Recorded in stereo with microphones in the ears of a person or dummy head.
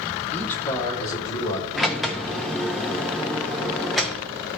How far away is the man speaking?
About 2.5 m.